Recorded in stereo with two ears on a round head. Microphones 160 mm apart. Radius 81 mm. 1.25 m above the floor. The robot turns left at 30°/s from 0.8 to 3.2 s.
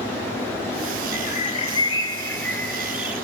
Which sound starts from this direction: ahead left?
A bird, at 1.1 s.